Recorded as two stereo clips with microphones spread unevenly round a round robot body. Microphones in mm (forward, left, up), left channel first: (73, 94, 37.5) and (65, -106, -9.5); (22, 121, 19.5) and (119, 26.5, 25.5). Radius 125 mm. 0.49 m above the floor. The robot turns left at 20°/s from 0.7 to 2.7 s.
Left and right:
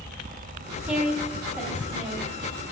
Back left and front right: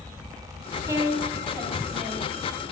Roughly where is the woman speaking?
Right.